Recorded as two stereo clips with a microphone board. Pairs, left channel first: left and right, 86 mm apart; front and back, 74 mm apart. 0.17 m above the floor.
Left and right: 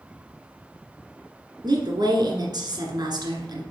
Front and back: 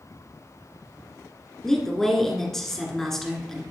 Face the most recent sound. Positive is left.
turn(degrees=-85)